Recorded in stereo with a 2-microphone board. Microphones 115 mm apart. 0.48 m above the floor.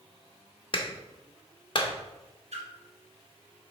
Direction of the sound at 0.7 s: 45° left (ahead or behind).